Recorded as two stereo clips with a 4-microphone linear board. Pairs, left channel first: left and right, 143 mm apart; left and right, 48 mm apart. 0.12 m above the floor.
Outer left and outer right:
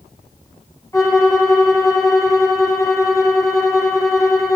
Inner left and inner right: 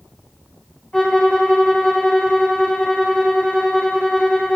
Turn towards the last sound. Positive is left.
turn(degrees=20)  # may be behind; listen again after turning